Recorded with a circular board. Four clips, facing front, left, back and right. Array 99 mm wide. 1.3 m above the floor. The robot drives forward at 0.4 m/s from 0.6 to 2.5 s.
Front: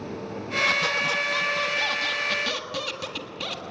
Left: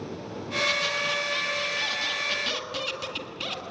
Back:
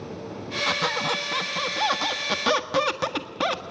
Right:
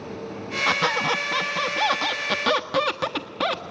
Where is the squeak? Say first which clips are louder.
Right 10 dB, back 3 dB; 105° right, 1.3 m; by 3.6 s 130° right, 1.6 m.